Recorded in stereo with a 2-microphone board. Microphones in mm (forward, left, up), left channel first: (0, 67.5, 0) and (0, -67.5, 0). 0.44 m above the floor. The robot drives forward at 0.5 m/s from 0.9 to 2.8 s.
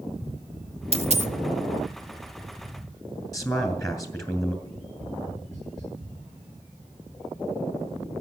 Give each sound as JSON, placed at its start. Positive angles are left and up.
{"t": 0.9, "sound": "a dropped coin", "side_deg": -50, "distance_m": 0.7}
{"t": 3.3, "sound": "a man speaking", "side_deg": 25, "distance_m": 2.5}
{"t": 4.7, "sound": "tapping", "side_deg": 0, "distance_m": 8.0}